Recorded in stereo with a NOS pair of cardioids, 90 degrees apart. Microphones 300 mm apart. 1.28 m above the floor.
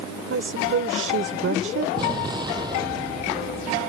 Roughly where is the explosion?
Ahead.